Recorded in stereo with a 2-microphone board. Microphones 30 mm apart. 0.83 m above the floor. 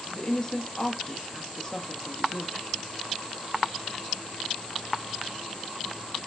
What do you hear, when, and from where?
0.1 s a woman speaking: 30° left (ahead or behind), 1.2 m